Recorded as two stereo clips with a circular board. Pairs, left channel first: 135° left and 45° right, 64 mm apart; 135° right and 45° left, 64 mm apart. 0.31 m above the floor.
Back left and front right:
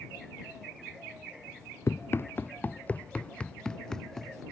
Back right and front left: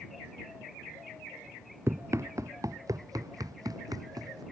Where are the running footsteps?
90° left; by 4.4 s 50° left.